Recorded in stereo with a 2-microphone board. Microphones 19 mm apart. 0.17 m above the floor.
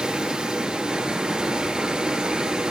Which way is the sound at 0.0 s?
45° right (ahead or behind).